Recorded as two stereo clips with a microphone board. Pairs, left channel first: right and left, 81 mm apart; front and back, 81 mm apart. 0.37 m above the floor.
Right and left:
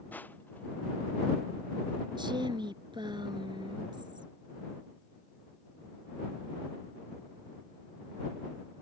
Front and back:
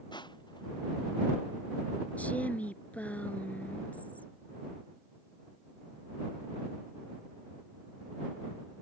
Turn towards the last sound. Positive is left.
turn(degrees=70)